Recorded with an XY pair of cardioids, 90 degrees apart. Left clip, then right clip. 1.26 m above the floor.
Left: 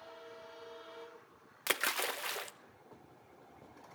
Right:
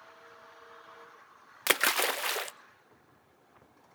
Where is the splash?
50° right, 0.7 m.